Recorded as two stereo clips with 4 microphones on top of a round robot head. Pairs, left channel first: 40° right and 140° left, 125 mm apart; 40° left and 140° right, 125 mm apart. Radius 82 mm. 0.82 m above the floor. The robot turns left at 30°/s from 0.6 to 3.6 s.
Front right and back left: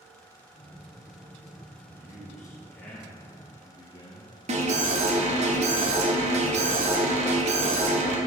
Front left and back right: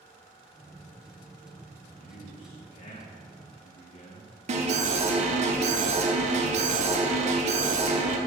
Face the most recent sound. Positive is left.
turn(degrees=180)